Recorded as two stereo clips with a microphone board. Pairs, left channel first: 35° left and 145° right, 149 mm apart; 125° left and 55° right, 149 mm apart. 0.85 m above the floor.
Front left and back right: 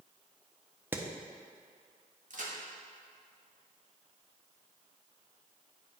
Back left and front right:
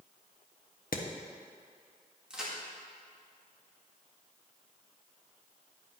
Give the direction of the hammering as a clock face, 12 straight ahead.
7 o'clock.